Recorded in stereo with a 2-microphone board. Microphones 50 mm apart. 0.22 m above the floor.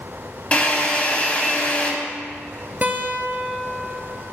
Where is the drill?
25° left (ahead or behind), 1.3 m.